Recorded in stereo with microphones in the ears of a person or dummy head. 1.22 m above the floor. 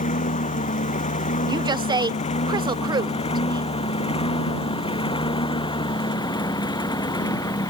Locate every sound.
0.0 s a lawn mower: 35° left (ahead or behind); by 7.7 s 15° left (ahead or behind)
1.5 s a woman speaking: 25° right (ahead or behind)